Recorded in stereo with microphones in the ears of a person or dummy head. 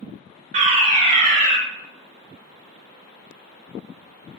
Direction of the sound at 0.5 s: 35° right (ahead or behind).